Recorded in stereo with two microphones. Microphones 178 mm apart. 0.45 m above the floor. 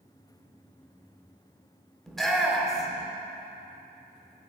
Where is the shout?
Centre (ahead or behind), 1.0 m.